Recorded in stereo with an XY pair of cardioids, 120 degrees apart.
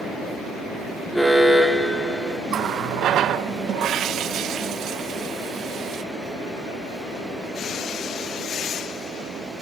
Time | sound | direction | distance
1.1 | an alarm | straight ahead | 1.6 m
2.5 | a running tap | 65° right | 0.6 m